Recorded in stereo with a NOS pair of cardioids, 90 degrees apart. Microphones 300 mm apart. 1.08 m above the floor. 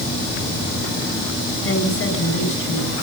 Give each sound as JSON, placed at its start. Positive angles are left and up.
{"t": 1.6, "sound": "a woman speaking", "azimuth_deg": 50, "distance_m": 9.5}